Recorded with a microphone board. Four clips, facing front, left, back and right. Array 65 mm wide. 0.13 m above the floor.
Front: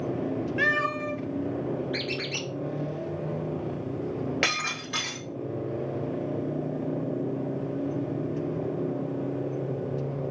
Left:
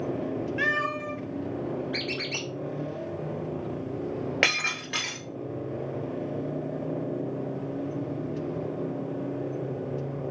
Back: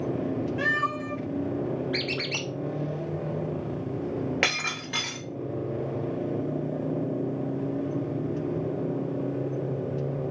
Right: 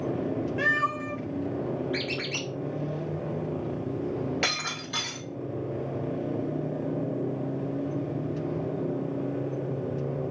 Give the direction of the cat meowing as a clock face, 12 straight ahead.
11 o'clock.